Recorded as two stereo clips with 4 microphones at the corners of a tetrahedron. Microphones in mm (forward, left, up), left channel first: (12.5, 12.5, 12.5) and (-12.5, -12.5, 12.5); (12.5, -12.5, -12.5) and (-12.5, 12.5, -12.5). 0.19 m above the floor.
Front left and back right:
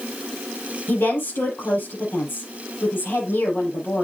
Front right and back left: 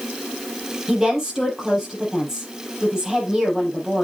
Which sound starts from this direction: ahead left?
A woman speaking, at 0.9 s.